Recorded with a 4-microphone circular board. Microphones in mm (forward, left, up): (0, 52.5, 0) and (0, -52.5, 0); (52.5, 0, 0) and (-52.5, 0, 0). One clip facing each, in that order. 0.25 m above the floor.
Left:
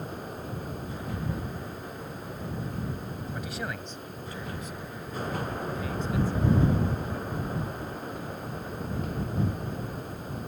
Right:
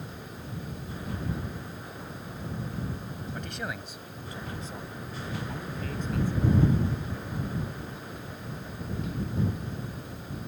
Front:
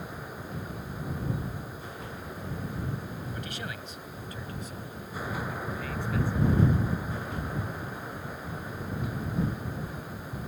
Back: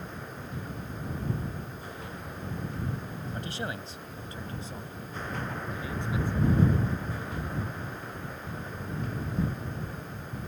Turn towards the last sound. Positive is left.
turn(degrees=-110)